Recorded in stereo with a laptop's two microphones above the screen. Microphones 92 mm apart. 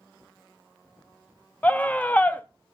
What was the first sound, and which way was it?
A scream, 15° left (ahead or behind).